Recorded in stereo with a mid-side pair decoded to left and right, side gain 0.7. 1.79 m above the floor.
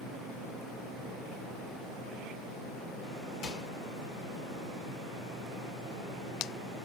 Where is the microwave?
65° left, 2.5 m.